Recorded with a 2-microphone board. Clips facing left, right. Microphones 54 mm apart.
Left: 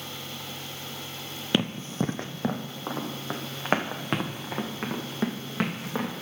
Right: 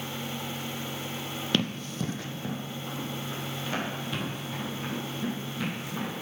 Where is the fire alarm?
I don't hear a fire alarm.